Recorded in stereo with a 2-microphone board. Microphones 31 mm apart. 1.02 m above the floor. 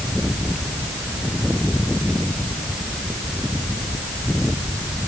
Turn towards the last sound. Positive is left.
No sound to turn to.